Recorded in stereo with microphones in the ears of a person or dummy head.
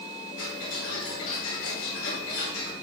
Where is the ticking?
75° left (ahead or behind), 5.5 m.